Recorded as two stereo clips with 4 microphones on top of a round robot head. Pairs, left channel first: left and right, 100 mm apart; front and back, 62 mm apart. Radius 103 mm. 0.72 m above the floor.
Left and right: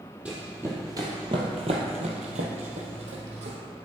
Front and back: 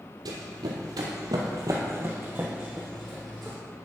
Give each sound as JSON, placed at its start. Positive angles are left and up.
{"t": 0.2, "sound": "running footsteps", "azimuth_deg": -170, "distance_m": 1.8}